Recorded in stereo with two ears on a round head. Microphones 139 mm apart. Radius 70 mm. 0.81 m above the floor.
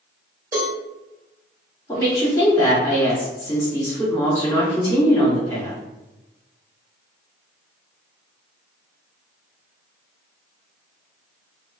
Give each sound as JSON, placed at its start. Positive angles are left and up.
{"t": 0.5, "sound": "a cowbell", "side_deg": -15, "distance_m": 1.6}
{"t": 1.9, "sound": "a woman speaking", "side_deg": 20, "distance_m": 1.4}